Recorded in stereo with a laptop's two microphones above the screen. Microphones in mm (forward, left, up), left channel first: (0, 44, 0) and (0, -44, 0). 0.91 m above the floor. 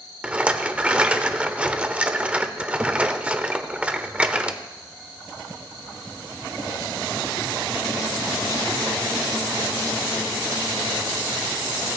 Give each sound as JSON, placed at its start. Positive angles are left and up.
{"t": 0.2, "sound": "a rattle", "side_deg": -15, "distance_m": 0.6}